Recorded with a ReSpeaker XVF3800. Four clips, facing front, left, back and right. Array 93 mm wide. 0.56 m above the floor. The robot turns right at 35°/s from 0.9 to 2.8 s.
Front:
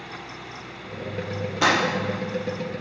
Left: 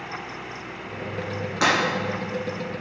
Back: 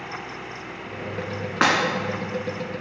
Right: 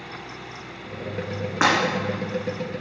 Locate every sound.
1.6 s breaking glass: 150° right, 1.9 m; by 1.8 s 145° right, 1.9 m